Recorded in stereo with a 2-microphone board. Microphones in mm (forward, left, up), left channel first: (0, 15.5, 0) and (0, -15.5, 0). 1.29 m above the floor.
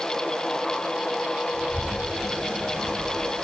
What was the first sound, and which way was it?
A child speaking, 65° right (ahead or behind).